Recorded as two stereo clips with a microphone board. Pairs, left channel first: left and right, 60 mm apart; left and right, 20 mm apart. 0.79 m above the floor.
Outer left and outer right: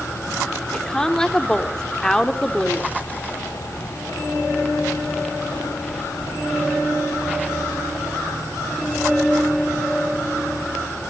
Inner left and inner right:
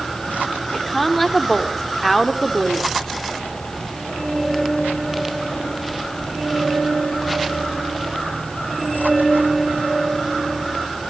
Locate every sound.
0.7 s a woman speaking: 10° left (ahead or behind), 1.9 m